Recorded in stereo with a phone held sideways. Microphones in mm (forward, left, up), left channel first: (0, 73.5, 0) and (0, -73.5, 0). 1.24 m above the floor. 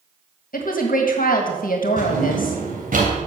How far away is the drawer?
About 3 m.